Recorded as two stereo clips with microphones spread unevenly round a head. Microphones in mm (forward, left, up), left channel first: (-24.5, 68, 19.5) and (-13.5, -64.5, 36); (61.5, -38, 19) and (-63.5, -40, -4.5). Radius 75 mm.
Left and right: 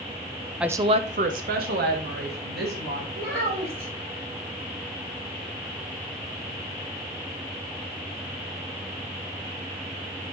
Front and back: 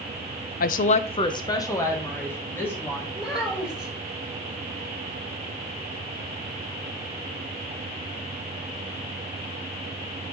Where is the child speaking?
90° right, 3.5 m.